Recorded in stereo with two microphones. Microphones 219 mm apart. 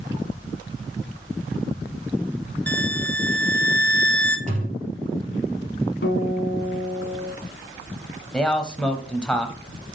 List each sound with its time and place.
2.7 s a violin: 5° left (ahead or behind), 1.0 m
4.5 s a thud: 35° right (ahead or behind), 2.5 m
6.0 s a guitar: 60° left (ahead or behind), 1.4 m
8.3 s a man speaking: 5° left (ahead or behind), 1.0 m